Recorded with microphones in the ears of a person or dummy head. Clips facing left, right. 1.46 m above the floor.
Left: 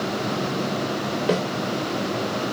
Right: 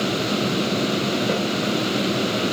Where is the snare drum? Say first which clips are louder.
Left 5 dB; 70° left (ahead or behind), 1.9 m.